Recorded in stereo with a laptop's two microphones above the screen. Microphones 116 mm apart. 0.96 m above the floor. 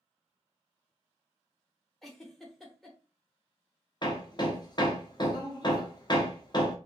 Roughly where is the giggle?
Centre.